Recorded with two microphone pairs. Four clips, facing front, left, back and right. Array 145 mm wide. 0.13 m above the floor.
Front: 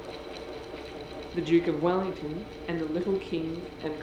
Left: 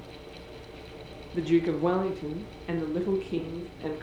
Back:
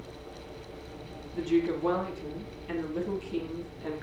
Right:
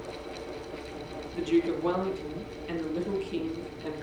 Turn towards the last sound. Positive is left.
turn(degrees=25)